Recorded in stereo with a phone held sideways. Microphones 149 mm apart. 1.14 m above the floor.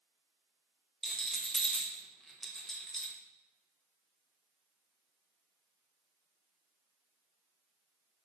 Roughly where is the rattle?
Centre.